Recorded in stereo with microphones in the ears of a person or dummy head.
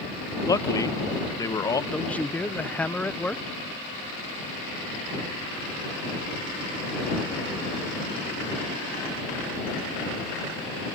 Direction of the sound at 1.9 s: 10° left (ahead or behind).